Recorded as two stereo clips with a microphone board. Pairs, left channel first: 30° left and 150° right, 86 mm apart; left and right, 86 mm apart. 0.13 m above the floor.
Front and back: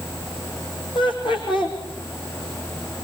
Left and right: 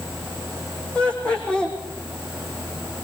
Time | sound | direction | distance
0.9 | laughter | 10° left | 6 m